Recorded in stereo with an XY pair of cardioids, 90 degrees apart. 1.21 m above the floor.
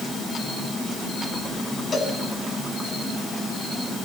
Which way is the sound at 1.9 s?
45° left.